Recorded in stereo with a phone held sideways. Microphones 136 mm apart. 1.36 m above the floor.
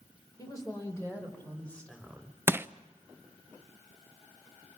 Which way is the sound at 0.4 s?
25° left (ahead or behind).